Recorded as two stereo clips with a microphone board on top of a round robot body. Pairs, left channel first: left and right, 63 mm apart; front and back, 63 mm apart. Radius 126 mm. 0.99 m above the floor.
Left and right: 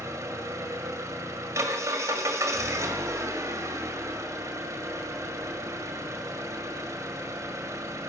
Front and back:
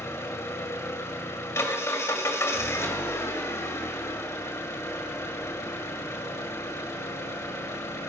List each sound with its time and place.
0.0 s an engine running: 45° right, 1.7 m